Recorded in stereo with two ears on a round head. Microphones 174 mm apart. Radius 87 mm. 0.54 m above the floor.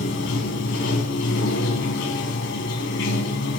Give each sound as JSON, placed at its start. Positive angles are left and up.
{"t": 0.0, "sound": "running water", "side_deg": 65, "distance_m": 1.8}